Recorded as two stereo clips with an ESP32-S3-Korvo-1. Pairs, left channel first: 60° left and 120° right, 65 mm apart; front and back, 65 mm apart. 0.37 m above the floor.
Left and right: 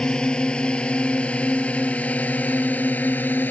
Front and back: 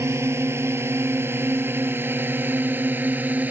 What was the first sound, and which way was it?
A drone, 135° left.